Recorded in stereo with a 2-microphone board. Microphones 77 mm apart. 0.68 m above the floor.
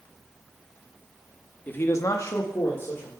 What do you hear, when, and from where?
1.7 s a man speaking: 20° left (ahead or behind), 0.9 m; by 3.1 s 30° left (ahead or behind), 2.0 m